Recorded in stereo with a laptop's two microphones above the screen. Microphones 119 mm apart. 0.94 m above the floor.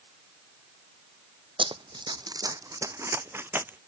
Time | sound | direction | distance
1.6 | running footsteps | 45° right (ahead or behind) | ?